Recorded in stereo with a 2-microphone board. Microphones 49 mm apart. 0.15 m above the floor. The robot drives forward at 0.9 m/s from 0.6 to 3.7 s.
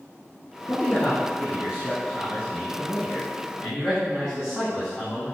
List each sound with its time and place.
0.7 s a man speaking: 10° left (ahead or behind), 3 m; by 5.4 s 5° left (ahead or behind), 6 m